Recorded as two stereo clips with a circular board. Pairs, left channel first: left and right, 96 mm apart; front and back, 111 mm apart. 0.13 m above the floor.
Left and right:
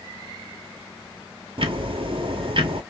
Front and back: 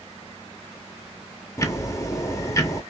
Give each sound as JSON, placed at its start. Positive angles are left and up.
{"t": 1.6, "sound": "ticking", "azimuth_deg": -60, "distance_m": 0.6}